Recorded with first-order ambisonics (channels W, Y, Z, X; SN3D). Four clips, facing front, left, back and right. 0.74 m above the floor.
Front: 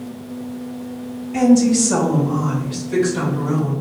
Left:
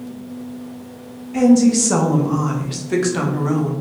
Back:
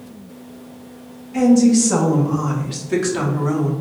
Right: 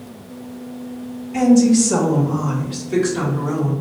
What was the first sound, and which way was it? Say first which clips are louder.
A woman speaking: even, back 1 dB; 10° left.